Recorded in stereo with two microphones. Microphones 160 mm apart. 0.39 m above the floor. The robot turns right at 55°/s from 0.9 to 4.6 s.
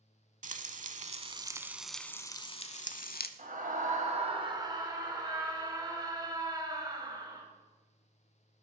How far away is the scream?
About 2 m.